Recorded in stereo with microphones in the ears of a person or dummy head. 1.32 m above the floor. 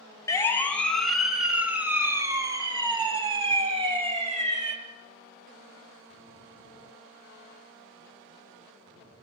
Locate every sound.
0.3 s a siren: 15° left (ahead or behind), 2 m; by 4.8 s 35° right (ahead or behind), 4 m